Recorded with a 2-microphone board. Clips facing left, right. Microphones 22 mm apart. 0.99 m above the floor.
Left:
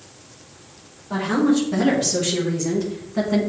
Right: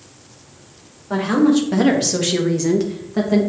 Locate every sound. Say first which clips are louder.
1.1 s a woman speaking: right 4 dB; 35° right (ahead or behind), 2 m; by 3.4 s 25° right (ahead or behind), 1.2 m